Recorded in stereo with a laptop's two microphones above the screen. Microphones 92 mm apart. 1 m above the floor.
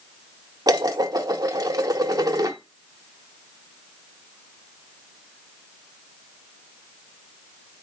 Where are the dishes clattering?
45° right (ahead or behind), 0.8 m.